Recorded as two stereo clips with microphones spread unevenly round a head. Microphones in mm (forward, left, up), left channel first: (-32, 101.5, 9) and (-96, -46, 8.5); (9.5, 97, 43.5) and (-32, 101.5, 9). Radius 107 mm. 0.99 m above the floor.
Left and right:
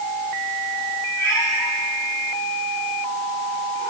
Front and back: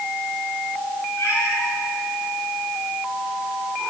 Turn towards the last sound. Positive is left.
turn(degrees=0)